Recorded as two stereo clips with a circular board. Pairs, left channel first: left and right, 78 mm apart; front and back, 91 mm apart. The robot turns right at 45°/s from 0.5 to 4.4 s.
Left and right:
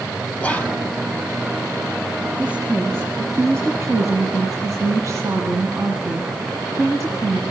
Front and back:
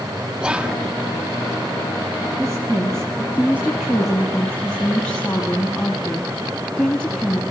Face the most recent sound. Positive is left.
turn(degrees=-70)